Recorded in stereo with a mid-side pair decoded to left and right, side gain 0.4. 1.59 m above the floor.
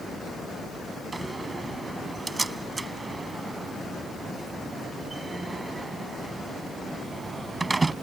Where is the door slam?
30° right.